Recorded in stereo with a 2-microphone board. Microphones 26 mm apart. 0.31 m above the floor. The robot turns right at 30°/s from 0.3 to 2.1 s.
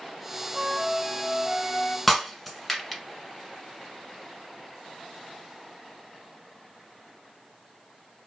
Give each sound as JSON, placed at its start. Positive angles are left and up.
{"t": 0.5, "sound": "a flute", "side_deg": -5, "distance_m": 0.7}
{"t": 2.1, "sound": "breaking glass", "side_deg": 5, "distance_m": 1.0}